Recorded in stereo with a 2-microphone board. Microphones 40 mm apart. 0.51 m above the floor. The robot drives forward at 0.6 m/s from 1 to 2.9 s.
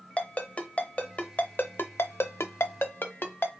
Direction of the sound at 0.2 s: 35° left (ahead or behind).